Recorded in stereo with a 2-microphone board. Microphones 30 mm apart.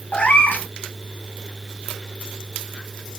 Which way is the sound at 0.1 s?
55° left (ahead or behind).